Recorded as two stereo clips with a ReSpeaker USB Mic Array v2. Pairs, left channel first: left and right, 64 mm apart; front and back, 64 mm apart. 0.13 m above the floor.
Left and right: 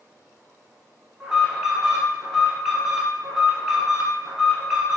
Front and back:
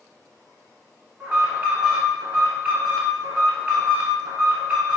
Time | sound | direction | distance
1.2 | an alarm | 155° right | 1.2 m